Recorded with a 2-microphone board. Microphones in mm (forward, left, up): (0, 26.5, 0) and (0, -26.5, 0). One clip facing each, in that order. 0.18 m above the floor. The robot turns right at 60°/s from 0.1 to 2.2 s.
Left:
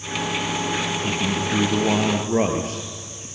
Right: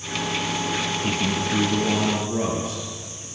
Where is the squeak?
No squeak in this recording.